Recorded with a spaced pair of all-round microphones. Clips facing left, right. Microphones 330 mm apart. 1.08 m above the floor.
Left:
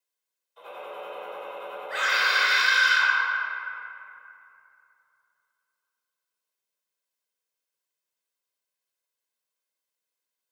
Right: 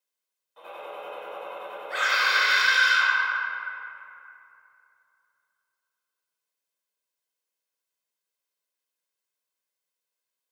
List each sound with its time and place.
0.6 s a gunshot: 65° right (ahead or behind), 1.2 m
1.9 s a scream: centre (ahead or behind), 0.6 m